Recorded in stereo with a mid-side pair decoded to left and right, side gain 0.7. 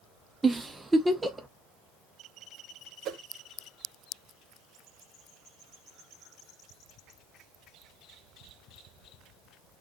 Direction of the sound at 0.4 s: 15° right.